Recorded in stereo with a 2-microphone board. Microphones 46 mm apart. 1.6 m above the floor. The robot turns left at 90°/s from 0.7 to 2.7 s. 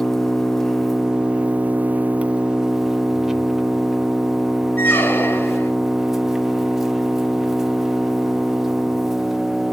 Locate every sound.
0.0 s an engine running: 15° left, 0.7 m; by 9.7 s 165° right, 0.7 m
4.8 s a squeak: 50° left (ahead or behind), 1.9 m